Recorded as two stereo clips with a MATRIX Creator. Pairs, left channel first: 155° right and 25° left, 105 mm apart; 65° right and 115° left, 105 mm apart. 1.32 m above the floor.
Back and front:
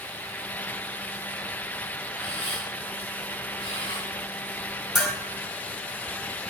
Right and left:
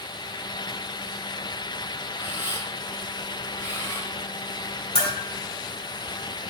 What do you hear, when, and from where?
2.2 s a camera shutter: straight behind, 4 m
5.0 s a bell: 65° right, 3 m